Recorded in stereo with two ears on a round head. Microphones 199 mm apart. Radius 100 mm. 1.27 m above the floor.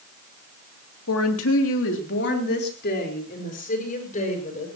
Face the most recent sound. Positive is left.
turn(degrees=35)  # may be behind; listen again after turning